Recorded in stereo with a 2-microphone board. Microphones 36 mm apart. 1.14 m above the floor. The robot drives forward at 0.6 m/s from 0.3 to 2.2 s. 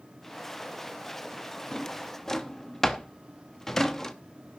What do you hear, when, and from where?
1.7 s a drawer: 15° left (ahead or behind), 0.7 m; by 4.1 s 10° left (ahead or behind), 0.9 m